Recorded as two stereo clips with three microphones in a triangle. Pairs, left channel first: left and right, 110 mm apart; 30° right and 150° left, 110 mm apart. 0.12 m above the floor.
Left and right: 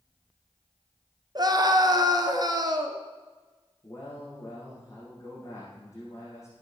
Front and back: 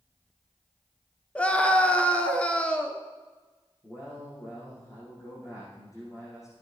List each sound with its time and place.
1.4 s a scream: 105° right, 1.4 m
3.8 s a man speaking: 30° left, 6 m